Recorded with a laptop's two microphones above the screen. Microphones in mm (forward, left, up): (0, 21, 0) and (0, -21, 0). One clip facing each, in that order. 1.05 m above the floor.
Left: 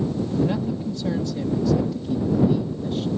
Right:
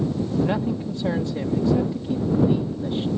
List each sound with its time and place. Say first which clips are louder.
0.4 s a man speaking: right 1 dB; 30° right (ahead or behind)